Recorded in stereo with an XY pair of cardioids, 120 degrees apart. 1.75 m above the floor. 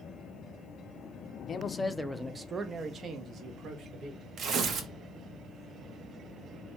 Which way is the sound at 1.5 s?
35° left.